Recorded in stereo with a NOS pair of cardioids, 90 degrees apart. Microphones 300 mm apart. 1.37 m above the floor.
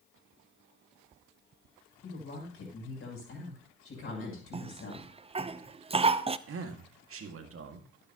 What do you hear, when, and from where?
2.0 s a woman speaking: 45° left, 7 m
4.5 s a cough: 20° right, 0.7 m
6.5 s a man speaking: 45° right, 2 m